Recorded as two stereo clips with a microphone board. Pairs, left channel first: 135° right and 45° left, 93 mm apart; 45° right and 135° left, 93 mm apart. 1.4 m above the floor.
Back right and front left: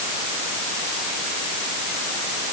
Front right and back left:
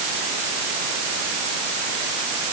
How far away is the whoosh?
I don't hear a whoosh.